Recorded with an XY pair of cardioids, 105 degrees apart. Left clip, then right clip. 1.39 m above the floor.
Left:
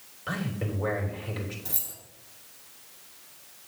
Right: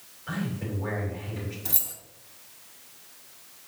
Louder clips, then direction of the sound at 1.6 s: Right 4 dB; 35° right.